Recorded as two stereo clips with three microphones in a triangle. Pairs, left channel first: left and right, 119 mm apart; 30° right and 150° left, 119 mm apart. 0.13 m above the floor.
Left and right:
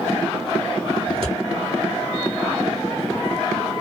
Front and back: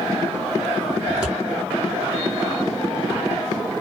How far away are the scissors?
About 1.7 m.